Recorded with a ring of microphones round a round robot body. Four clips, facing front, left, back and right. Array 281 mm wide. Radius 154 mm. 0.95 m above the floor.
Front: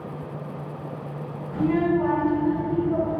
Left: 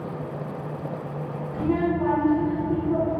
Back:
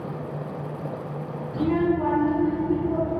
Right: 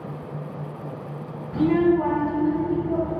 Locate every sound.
1.5 s a child speaking: 85° right, 1.4 m; by 3.2 s 120° right, 2.5 m